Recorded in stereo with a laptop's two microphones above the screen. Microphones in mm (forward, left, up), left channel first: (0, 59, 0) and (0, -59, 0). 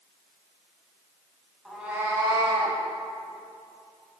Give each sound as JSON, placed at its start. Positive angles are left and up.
{"t": 1.6, "sound": "a cat meowing", "side_deg": 0, "distance_m": 1.1}